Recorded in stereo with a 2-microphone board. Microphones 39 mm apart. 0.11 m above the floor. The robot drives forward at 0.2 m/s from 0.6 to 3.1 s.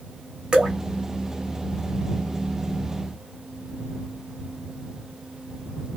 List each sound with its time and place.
0.5 s dripping: 25° right (ahead or behind), 1.1 m